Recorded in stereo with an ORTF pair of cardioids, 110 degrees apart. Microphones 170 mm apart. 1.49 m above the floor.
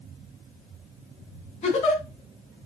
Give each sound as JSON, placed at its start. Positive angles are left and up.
{"t": 1.6, "sound": "a giggle", "azimuth_deg": 45, "distance_m": 2.5}